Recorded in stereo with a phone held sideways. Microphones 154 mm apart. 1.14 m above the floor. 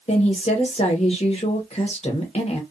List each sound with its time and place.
0.1 s a woman speaking: 45° left (ahead or behind), 1.0 m